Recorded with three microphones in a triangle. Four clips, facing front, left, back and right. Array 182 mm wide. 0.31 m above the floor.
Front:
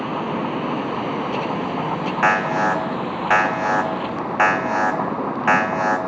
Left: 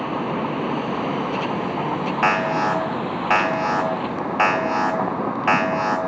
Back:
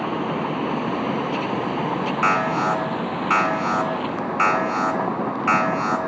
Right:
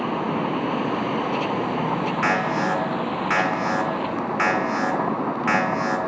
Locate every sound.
2.2 s an alarm: 40° left, 3.5 m